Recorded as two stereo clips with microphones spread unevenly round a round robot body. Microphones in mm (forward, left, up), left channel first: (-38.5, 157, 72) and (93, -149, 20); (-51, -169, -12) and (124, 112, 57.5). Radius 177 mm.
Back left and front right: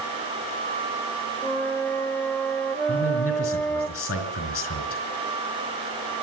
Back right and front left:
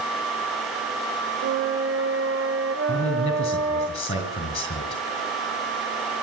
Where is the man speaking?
165° left, 5 m.